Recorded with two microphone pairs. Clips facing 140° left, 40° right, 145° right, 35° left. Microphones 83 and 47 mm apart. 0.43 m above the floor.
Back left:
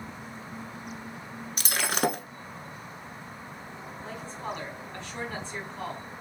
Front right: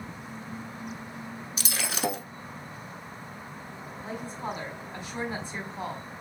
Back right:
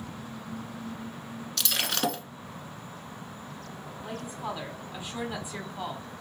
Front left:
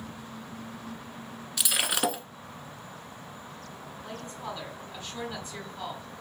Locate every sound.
1.6 s breaking glass: 115° left, 0.6 m
4.0 s a woman speaking: 90° right, 1.1 m